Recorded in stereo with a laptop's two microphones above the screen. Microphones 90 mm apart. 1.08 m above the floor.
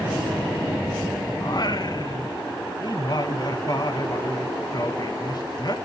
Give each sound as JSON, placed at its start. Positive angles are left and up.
{"t": 1.4, "sound": "singing", "side_deg": 50, "distance_m": 1.0}